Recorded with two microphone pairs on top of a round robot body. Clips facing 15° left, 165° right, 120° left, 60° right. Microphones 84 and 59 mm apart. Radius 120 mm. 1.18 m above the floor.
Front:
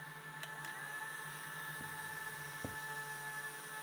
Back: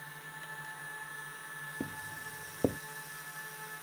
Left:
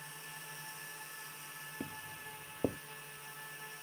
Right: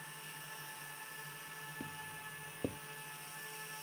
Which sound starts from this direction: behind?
Footsteps, at 1.8 s.